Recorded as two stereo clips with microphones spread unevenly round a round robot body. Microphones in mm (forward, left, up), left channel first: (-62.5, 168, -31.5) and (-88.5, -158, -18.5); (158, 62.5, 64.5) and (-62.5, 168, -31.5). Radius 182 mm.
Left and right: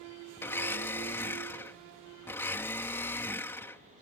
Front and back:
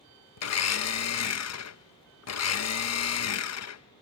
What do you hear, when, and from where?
0.4 s a blender: 5° left